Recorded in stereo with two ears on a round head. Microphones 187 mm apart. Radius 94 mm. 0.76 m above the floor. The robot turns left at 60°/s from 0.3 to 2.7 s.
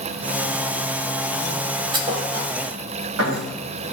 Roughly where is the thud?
Right.